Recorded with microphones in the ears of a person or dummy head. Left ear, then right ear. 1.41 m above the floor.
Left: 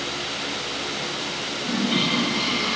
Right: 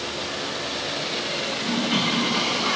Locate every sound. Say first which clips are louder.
1.6 s a toilet flushing: left 2 dB; 35° right (ahead or behind), 7 m